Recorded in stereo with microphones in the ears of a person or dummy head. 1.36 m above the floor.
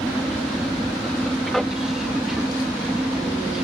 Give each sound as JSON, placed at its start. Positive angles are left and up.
{"t": 0.0, "sound": "an aircraft", "side_deg": 5}